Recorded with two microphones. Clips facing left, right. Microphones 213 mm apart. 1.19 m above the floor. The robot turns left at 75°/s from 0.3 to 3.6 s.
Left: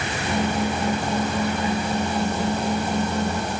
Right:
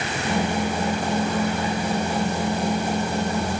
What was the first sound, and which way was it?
Only background noise.